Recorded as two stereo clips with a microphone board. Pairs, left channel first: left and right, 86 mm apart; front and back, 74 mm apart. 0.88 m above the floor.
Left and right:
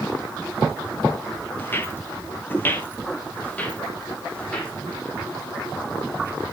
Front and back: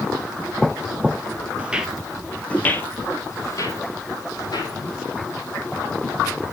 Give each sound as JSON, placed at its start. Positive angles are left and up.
{"t": 1.6, "sound": "footsteps", "azimuth_deg": 125, "distance_m": 0.9}